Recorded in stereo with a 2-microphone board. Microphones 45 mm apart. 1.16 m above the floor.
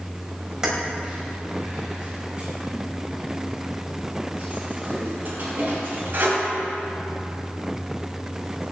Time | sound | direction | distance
0.6 | keys jangling | 15° right (ahead or behind) | 4.5 m